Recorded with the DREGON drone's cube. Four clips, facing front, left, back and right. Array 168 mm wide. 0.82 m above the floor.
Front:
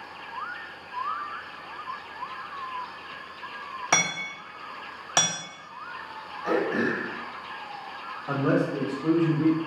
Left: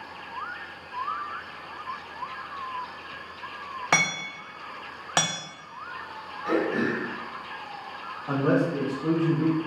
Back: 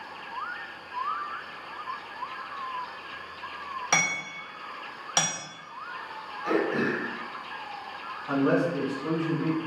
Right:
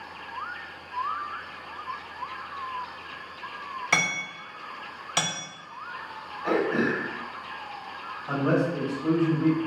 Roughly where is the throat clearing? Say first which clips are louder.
Right 1 dB, front 1 dB; ahead right.